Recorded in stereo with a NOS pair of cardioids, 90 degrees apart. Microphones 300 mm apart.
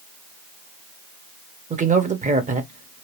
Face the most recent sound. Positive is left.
turn(degrees=-25)